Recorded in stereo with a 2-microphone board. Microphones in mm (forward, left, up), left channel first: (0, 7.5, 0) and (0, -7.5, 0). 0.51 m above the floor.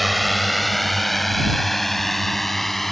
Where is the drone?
Centre (ahead or behind); by 2.9 s 15° left (ahead or behind).